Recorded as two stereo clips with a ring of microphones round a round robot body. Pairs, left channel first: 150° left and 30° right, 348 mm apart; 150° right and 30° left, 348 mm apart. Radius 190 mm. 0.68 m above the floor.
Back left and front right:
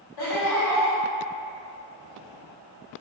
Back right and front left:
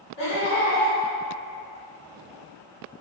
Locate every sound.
0.2 s laughter: 155° left, 1.4 m